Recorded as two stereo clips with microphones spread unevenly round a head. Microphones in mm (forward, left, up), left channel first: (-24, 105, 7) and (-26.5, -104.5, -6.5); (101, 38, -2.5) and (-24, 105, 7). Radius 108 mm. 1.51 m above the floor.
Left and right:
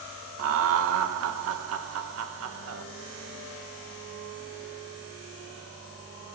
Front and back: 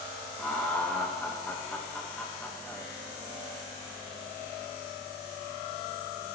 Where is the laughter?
115° right, 1.3 m.